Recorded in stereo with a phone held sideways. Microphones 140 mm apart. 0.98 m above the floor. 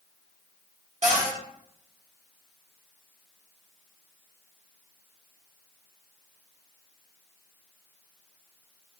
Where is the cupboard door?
55° right (ahead or behind), 1.1 m.